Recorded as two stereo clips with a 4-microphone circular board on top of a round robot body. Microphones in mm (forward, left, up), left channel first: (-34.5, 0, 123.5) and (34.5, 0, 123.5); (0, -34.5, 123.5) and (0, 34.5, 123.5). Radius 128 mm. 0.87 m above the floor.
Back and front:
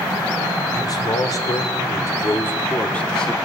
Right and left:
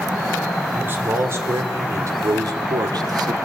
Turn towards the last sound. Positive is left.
turn(degrees=100)